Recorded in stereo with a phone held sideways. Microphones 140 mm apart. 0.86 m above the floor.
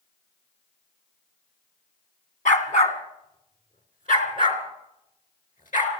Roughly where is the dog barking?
Left.